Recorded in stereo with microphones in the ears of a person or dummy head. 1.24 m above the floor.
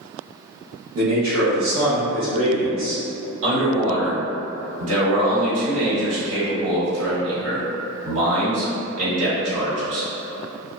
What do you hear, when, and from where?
0.9 s a man speaking: 80° right, 0.9 m
3.4 s a man speaking: 85° right, 1.5 m